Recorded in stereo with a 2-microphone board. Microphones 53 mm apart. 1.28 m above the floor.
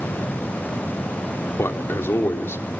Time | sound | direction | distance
1.6 | a man speaking | 55° left (ahead or behind) | 2.5 m